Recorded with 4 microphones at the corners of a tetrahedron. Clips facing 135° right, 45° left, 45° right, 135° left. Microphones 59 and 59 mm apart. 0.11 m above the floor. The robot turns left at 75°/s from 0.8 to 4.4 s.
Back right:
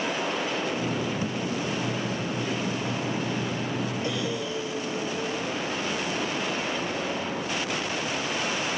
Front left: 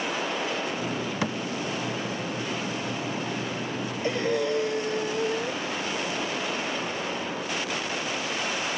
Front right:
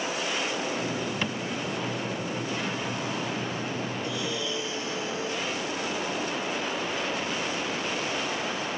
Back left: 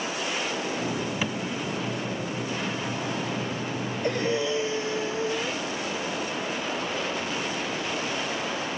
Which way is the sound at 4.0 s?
100° left.